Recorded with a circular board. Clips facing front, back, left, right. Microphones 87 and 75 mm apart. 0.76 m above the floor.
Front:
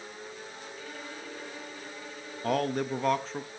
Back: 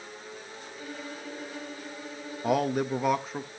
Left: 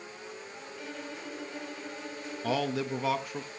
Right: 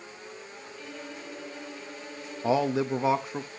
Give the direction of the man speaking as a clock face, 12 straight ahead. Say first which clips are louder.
Back 2 dB, right 5 dB; 4 o'clock.